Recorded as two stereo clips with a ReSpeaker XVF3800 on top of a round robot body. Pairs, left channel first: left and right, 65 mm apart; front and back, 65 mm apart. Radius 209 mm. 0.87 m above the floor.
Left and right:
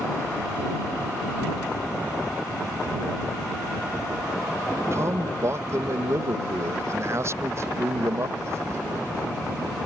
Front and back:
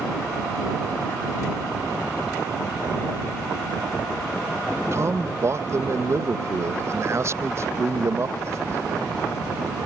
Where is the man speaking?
135° right.